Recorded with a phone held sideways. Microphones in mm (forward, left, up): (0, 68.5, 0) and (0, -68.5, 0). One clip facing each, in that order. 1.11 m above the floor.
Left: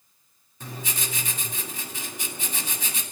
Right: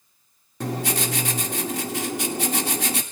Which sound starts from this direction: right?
Writing, at 0.6 s.